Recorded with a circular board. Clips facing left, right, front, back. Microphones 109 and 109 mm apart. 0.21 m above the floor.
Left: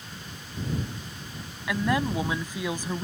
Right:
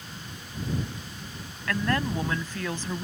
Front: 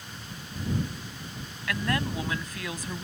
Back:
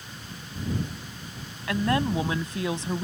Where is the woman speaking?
155° left.